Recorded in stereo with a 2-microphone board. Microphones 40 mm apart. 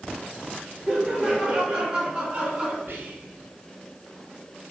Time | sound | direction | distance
0.9 | laughter | 15° right (ahead or behind) | 3 m
2.9 | whispering | 50° right (ahead or behind) | 4.5 m